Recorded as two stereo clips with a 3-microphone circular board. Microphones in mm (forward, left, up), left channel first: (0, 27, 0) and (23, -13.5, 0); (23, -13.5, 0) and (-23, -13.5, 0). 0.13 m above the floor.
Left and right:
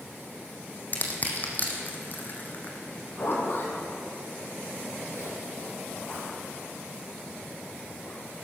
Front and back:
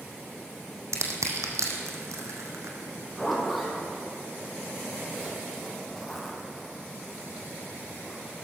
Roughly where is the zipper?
Left.